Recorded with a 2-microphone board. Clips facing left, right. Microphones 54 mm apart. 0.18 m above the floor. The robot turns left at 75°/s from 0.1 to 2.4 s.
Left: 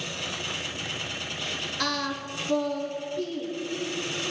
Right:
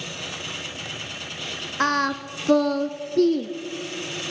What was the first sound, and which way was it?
Singing, 35° right.